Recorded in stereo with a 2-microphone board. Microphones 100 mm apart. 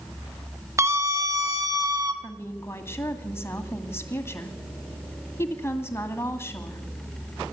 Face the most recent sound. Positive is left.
turn(degrees=25)  # may be behind; listen again after turning